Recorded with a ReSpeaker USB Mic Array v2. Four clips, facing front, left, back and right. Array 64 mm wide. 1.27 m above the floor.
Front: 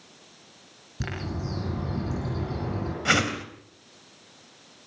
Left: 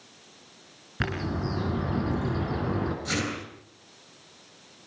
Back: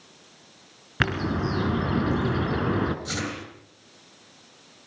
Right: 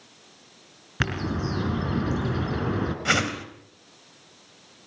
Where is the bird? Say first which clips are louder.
Right 2 dB, back 9 dB; 165° right, 3 m.